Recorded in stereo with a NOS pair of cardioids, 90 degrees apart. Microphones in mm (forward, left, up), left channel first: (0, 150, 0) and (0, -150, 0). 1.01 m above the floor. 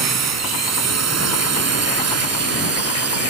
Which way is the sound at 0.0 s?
55° right.